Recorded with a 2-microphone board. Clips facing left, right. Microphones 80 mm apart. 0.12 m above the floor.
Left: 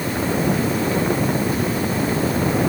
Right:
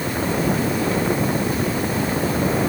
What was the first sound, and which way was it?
Only background noise.